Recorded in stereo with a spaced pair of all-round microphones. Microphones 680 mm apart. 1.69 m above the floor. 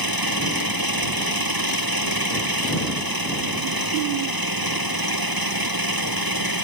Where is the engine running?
30° right (ahead or behind).